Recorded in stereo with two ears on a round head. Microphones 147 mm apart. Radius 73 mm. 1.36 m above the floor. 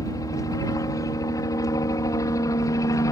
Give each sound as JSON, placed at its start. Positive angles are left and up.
{"t": 0.0, "sound": "a helicopter", "side_deg": 20}